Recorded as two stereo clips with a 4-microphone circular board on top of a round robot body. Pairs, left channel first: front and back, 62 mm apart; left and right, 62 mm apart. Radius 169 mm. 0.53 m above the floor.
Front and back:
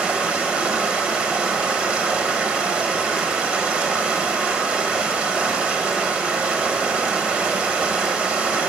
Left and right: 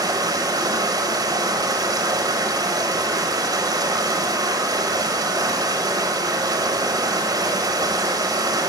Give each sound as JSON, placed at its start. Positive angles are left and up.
{"t": 0.0, "sound": "running water", "azimuth_deg": -100, "distance_m": 0.8}